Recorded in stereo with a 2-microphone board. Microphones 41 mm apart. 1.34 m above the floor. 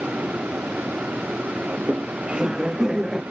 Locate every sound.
1.7 s laughter: 40° right (ahead or behind); by 3.2 s 10° right (ahead or behind)